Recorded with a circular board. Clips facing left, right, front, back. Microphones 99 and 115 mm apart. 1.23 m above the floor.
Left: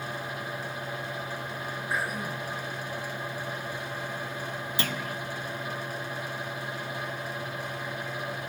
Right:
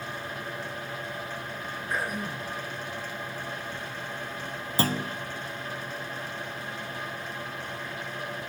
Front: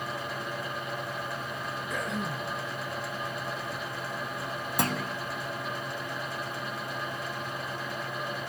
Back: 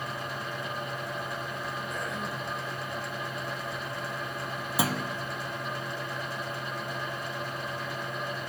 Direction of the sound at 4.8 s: 95° right.